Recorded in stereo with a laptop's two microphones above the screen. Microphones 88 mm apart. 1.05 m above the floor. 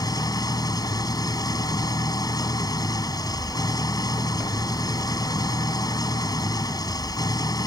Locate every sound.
0.0 s an engine running: 45° left (ahead or behind)